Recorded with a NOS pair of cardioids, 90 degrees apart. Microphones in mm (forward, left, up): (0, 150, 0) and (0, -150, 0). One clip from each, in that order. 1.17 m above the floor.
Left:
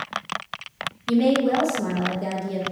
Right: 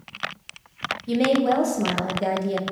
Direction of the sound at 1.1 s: 25° right.